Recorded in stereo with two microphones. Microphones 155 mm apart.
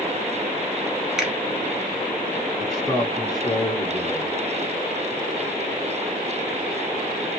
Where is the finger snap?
5° right (ahead or behind), 1.1 m.